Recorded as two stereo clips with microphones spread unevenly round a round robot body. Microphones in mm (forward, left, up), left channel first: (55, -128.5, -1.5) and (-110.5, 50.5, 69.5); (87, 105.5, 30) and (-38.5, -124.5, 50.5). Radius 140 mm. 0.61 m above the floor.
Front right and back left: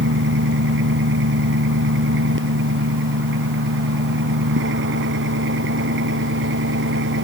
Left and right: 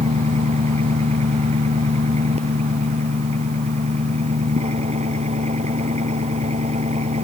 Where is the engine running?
175° left.